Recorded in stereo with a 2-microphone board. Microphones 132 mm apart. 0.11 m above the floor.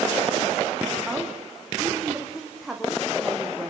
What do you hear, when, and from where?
1.1 s a woman speaking: centre (ahead or behind), 6 m